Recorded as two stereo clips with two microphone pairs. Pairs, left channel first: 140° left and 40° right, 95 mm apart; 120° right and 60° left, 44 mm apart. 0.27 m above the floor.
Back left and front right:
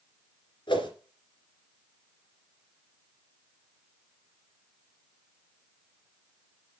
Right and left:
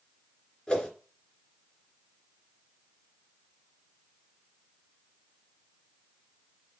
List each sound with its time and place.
0.7 s a whoosh: 170° left, 2.5 m